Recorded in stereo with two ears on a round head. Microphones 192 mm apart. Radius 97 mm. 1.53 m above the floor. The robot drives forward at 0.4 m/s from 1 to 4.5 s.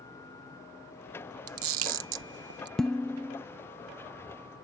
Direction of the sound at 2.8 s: 5° left (ahead or behind).